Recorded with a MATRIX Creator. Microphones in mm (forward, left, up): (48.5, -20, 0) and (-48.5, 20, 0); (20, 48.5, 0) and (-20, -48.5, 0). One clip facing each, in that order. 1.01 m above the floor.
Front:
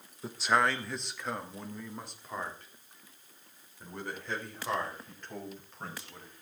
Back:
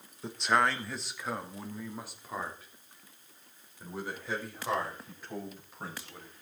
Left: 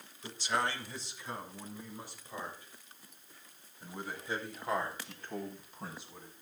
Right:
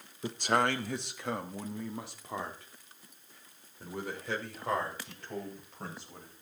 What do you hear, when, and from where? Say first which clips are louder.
0.2 s a man speaking: even, right 5 dB; 110° right, 1.0 m; by 6.3 s 120° right, 7 m